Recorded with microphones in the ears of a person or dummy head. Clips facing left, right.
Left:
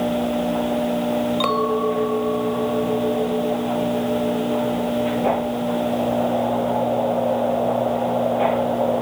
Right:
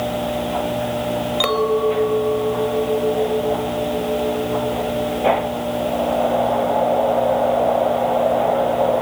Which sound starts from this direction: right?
A clink, at 1.4 s.